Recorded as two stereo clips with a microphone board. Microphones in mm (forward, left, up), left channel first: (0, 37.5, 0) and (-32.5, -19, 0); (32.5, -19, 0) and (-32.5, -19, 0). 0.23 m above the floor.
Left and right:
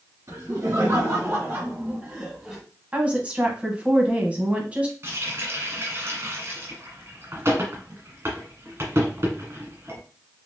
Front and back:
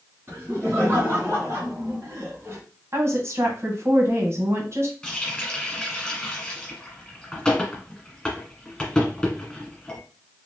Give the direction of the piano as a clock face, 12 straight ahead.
No piano in this recording.